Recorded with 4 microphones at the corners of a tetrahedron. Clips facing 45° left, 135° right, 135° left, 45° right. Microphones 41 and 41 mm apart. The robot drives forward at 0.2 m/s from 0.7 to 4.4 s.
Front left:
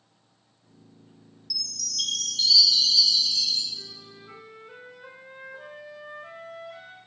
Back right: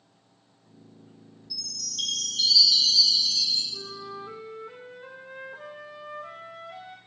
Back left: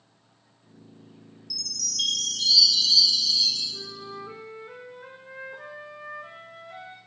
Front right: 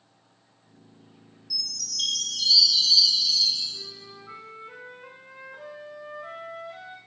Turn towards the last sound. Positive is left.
turn(degrees=-170)